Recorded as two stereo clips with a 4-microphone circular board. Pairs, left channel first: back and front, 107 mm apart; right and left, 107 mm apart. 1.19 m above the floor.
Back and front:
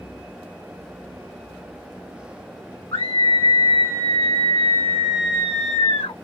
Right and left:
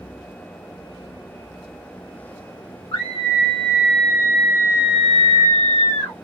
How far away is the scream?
About 1.6 m.